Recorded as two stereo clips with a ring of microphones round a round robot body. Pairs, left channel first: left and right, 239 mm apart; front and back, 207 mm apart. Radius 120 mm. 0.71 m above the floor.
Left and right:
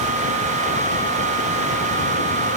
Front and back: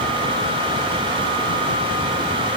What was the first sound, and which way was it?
Only background noise.